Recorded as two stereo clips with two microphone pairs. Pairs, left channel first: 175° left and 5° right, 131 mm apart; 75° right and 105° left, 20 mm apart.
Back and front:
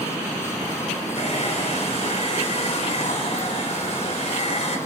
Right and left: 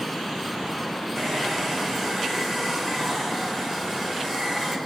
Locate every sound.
1.1 s a hair dryer: 155° right, 6 m